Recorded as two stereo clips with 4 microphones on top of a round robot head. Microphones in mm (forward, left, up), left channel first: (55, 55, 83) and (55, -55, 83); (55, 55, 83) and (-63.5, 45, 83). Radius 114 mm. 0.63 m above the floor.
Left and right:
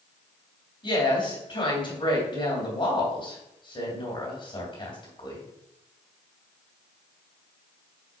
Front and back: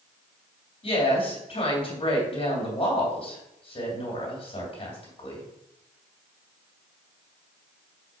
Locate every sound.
0.8 s a woman speaking: 45° left, 3 m